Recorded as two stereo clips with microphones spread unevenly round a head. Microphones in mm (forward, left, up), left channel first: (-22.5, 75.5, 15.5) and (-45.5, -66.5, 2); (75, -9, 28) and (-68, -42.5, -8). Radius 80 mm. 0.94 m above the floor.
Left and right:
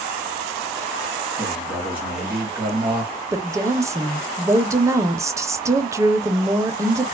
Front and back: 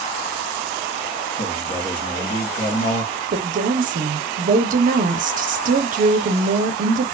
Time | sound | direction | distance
1.4 | a man speaking | 20° right | 1.4 m
3.3 | a woman speaking | 165° right | 0.6 m